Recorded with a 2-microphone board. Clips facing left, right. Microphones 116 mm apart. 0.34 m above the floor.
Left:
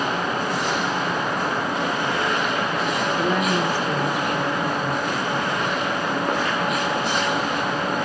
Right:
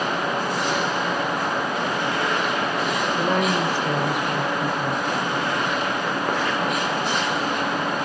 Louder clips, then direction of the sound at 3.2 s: Right 1 dB; 55° right (ahead or behind).